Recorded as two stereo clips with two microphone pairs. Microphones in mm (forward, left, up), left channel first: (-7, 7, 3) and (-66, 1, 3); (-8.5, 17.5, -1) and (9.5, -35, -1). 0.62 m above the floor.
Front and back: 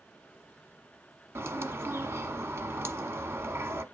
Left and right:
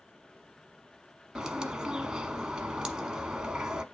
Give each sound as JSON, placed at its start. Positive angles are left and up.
{"t": 1.4, "sound": "a bird", "azimuth_deg": -145, "distance_m": 0.9}